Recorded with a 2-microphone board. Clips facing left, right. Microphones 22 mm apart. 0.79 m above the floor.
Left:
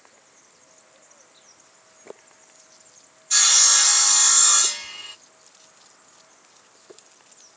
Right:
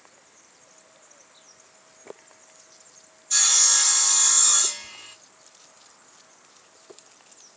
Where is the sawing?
25° left (ahead or behind), 1.0 m.